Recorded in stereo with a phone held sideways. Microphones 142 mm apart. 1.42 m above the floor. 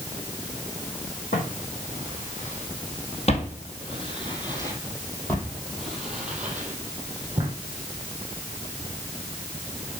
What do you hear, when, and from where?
1.3 s footsteps: 70° left (ahead or behind), 3.5 m; by 7.5 s 25° right (ahead or behind), 3 m